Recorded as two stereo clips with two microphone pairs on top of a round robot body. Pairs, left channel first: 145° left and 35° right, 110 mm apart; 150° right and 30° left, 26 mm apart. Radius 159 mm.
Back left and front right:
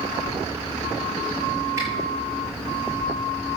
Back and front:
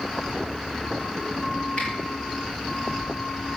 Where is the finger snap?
100° right, 7.5 m.